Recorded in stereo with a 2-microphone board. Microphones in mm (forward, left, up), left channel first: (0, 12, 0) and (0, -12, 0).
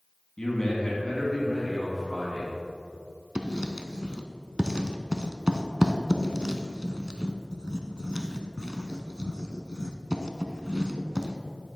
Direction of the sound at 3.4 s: 35° right (ahead or behind).